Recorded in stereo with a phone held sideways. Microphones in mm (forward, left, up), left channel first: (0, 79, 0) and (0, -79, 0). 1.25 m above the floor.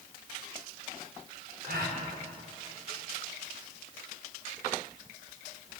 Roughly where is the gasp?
Right.